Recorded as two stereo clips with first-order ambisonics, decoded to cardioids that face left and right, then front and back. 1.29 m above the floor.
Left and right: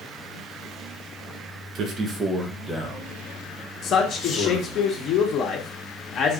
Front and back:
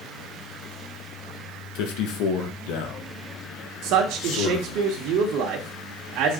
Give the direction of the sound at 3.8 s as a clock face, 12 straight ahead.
7 o'clock.